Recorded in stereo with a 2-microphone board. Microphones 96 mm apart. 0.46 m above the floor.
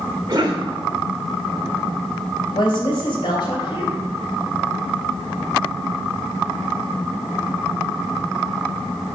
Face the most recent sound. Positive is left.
turn(degrees=55)  # may be behind; listen again after turning